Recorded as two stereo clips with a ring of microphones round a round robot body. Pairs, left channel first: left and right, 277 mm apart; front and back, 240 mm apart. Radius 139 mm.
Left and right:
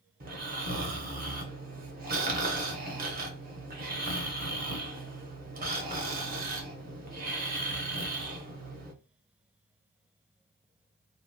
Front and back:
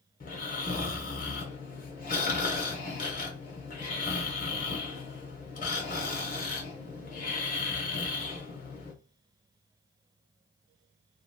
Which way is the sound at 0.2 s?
45° right.